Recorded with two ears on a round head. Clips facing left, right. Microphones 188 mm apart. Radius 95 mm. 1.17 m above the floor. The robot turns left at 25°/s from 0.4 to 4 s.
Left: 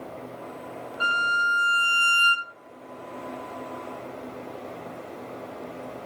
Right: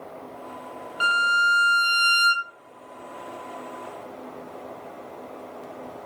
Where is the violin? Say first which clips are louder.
Right 4 dB; 105° right, 0.5 m; by 2.5 s 140° right, 0.5 m.